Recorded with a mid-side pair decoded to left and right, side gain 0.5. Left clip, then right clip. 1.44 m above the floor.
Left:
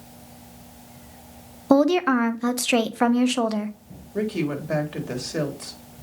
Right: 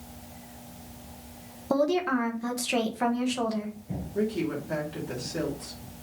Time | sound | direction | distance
1.7 | a woman speaking | 50° left | 1.2 m
4.1 | a woman speaking | 50° left | 3 m